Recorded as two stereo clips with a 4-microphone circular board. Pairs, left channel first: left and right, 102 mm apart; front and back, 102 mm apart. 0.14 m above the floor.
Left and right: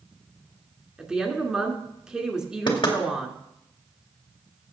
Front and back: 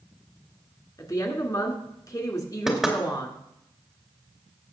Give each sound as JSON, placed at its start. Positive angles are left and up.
{"t": 1.0, "sound": "a woman speaking", "azimuth_deg": -10, "distance_m": 2.0}
{"t": 2.7, "sound": "knocking", "azimuth_deg": 95, "distance_m": 2.0}